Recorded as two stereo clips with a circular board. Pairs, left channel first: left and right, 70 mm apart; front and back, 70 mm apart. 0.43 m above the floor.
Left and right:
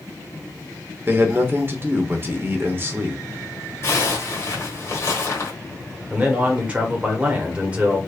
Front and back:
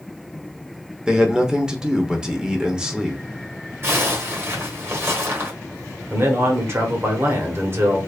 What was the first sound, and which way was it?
A man speaking, 110° right.